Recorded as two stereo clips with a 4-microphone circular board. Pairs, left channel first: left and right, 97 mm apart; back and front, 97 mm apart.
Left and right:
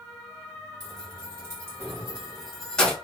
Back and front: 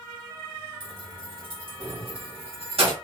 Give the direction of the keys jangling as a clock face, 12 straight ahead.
1 o'clock.